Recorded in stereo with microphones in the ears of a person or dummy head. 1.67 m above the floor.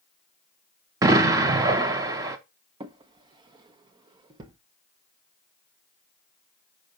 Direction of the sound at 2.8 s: 25° right (ahead or behind).